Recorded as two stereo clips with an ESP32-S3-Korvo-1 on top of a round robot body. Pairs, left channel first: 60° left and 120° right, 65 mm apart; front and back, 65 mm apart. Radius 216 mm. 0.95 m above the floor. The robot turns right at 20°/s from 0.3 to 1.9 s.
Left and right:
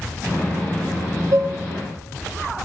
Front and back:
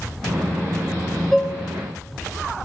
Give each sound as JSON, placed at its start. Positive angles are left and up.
{"t": 1.3, "sound": "dishes clattering", "azimuth_deg": -90, "distance_m": 0.9}